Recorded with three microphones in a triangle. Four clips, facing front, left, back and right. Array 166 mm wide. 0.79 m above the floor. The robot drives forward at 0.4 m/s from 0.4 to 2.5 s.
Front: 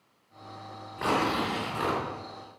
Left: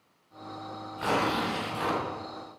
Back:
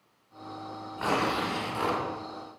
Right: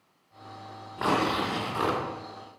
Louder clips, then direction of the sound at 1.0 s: Right 2 dB, front 1 dB; 90° right.